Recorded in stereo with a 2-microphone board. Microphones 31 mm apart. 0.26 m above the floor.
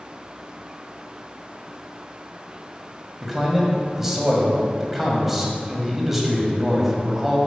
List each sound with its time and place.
3.2 s a man speaking: 10° right (ahead or behind), 1.5 m